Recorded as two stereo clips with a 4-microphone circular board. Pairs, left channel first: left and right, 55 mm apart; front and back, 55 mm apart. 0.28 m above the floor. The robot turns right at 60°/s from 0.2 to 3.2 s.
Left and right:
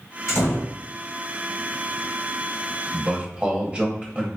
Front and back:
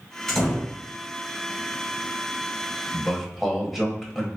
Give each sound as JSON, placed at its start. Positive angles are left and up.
{"t": 0.3, "sound": "a door slam", "azimuth_deg": 75, "distance_m": 1.8}
{"t": 2.9, "sound": "a man speaking", "azimuth_deg": -105, "distance_m": 0.9}